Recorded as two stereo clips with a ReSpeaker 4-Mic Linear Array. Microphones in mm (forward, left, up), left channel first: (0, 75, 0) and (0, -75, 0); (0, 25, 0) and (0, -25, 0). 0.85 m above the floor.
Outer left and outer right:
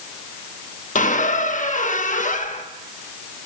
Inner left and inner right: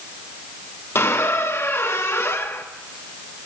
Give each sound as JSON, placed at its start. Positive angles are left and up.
{"t": 0.9, "sound": "a squeak", "side_deg": 55, "distance_m": 0.6}